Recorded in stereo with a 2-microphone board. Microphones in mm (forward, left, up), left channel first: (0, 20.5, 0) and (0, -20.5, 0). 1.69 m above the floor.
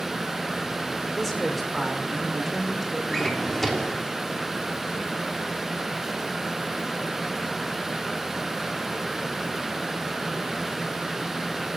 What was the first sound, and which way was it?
A woman speaking, 5° left (ahead or behind).